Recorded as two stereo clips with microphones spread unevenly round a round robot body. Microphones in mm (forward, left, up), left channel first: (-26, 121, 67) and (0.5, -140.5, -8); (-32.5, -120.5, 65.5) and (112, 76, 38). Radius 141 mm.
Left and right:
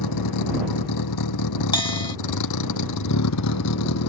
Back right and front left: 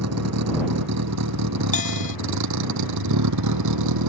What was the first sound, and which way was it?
A vehicle, 85° left.